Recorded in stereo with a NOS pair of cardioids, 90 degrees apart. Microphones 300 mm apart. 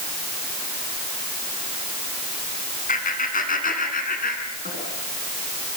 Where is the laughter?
25° left, 9.5 m; by 4.8 s 30° left, 12 m.